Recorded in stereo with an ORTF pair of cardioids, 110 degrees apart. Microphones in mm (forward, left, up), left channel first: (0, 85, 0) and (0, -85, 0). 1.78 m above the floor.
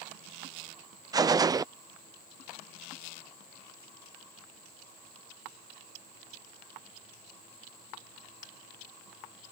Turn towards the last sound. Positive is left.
turn(degrees=-20)